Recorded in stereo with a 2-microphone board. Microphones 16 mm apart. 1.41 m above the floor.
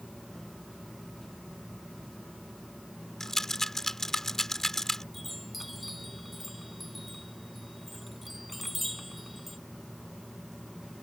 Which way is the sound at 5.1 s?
10° left (ahead or behind).